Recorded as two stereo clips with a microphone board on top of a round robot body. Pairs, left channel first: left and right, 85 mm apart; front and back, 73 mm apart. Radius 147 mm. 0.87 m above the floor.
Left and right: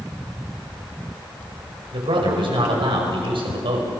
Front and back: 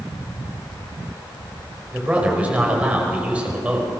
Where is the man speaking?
110° right, 5 m.